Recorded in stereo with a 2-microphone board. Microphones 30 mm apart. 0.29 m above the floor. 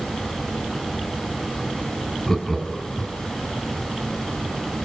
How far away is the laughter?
About 2.0 m.